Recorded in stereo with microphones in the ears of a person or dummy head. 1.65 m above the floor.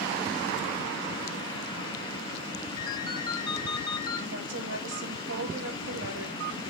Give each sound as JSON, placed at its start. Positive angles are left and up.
{"t": 2.8, "sound": "a ringtone", "side_deg": 25, "distance_m": 1.8}
{"t": 4.3, "sound": "a woman speaking", "side_deg": -75, "distance_m": 4.0}